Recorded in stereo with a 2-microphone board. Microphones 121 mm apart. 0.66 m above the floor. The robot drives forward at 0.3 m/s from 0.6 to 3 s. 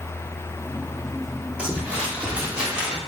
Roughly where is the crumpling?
Centre.